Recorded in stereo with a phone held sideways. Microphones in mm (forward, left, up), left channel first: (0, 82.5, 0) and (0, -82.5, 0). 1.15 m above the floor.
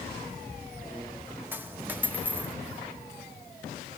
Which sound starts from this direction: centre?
A dropped coin, at 1.5 s.